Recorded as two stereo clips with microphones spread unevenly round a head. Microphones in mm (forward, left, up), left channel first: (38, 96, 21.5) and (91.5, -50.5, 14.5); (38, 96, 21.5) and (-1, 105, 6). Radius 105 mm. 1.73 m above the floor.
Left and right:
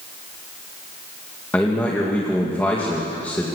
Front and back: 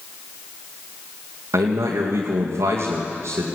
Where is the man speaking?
165° right, 2.5 m.